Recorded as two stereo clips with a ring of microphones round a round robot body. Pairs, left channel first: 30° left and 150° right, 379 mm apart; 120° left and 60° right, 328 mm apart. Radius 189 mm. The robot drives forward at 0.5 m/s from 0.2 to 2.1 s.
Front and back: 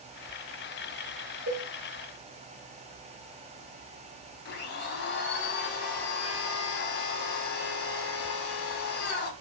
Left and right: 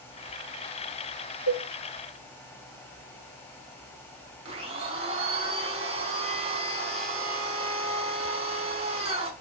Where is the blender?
5° right, 0.7 m.